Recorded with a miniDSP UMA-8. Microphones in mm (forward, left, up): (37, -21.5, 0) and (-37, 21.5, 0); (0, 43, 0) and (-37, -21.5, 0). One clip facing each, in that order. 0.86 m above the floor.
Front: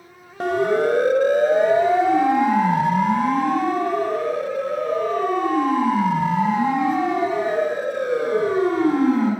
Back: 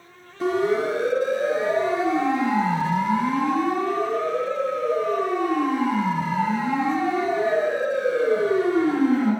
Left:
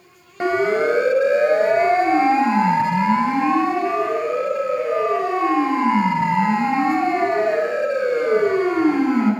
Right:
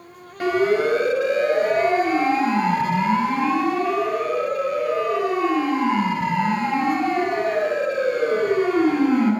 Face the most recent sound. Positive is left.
turn(degrees=0)